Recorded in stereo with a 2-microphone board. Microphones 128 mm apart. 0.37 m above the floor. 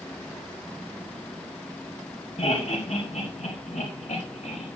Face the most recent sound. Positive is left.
turn(degrees=70)  # may be behind; listen again after turning